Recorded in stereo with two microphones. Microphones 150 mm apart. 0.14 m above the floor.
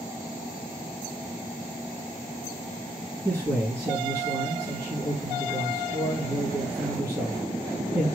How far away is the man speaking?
About 3 m.